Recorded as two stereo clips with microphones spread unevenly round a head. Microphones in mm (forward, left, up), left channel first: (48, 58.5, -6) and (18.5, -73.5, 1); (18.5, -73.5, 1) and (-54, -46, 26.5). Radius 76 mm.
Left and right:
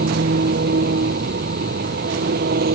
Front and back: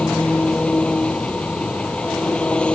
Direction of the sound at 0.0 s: 100° right.